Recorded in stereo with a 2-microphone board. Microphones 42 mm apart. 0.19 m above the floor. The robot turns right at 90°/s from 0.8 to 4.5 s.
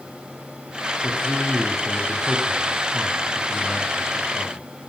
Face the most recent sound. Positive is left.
turn(degrees=70)